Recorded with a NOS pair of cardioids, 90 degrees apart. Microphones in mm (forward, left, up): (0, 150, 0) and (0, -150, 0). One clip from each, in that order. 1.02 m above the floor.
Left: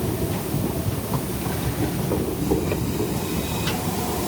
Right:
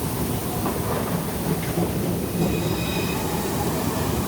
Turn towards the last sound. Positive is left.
No sound to turn to.